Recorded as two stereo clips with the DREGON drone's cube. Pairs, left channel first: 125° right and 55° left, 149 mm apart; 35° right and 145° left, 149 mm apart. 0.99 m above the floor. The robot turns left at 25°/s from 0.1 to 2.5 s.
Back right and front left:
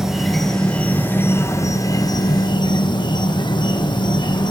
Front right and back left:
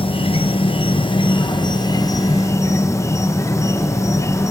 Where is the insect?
30° right, 0.8 m; by 4.5 s 90° right, 0.8 m.